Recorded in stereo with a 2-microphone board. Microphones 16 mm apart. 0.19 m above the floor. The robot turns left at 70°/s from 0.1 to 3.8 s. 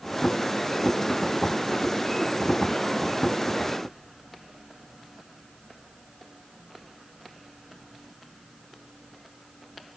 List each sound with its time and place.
Only background noise.